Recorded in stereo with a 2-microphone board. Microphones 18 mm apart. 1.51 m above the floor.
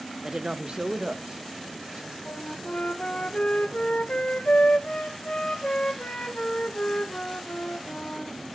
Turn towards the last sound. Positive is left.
turn(degrees=75)  # may be behind; listen again after turning